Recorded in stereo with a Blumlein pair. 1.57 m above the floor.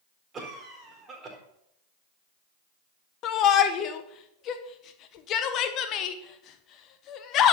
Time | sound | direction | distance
0.3 | a cough | 20° right | 4 m
3.2 | a shout | 35° left | 1.4 m